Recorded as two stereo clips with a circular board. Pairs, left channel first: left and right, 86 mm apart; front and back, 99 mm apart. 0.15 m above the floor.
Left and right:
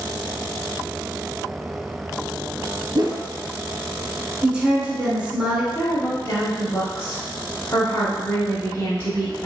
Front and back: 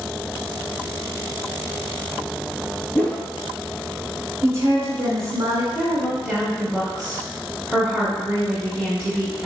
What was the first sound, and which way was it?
A whoosh, 70° right.